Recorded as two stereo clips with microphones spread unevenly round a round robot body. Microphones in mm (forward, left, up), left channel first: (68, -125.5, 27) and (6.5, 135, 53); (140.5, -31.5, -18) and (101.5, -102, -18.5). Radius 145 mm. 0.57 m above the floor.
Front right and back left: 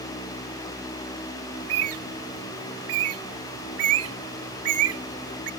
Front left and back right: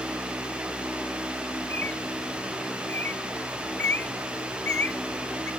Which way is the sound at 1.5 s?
140° left.